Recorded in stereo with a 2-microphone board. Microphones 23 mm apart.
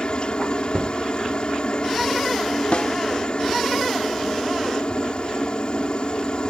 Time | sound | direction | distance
0.0 | a helicopter | 45° left (ahead or behind) | ?
2.7 | a snare drum | 60° left (ahead or behind) | ?